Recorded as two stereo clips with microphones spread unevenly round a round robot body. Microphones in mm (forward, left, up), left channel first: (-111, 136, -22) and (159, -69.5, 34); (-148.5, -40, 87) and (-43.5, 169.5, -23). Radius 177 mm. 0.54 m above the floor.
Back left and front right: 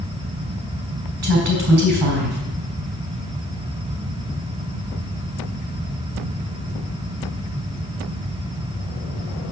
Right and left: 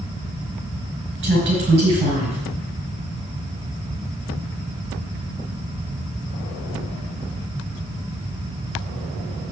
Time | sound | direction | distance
1.2 | a woman speaking | 5° left | 4.5 m